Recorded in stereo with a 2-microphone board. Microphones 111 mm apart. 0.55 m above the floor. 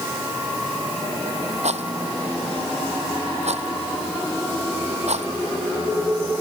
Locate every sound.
1.6 s a rattle: 85° right